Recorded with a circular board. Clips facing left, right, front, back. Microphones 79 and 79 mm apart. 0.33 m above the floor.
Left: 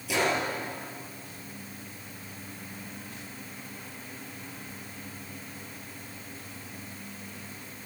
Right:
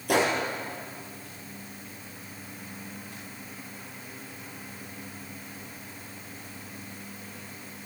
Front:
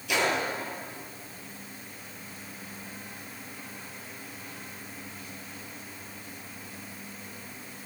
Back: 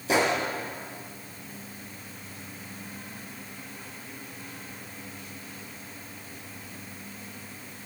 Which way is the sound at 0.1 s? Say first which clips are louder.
Right 3 dB, back 3 dB; 125° right.